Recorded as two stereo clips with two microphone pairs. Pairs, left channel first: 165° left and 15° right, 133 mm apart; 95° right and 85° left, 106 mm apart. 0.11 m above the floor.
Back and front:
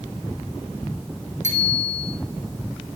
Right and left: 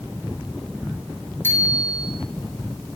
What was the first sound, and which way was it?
A bicycle bell, 30° right.